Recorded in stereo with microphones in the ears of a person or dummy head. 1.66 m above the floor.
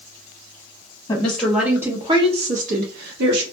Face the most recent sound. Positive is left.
turn(degrees=-65)  # may be behind; listen again after turning